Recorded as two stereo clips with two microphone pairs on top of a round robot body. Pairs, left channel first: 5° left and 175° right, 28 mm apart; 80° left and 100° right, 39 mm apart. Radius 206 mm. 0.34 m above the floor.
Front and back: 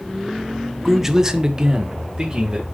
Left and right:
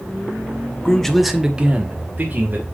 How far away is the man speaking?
About 1.2 m.